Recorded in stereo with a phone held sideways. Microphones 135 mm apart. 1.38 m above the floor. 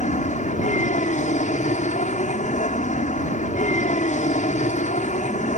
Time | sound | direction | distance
0.0 | an aircraft | 70° left (ahead or behind) | ?